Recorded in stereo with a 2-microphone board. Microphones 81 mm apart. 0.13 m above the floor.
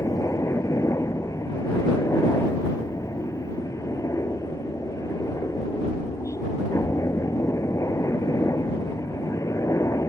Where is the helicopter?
40° left (ahead or behind).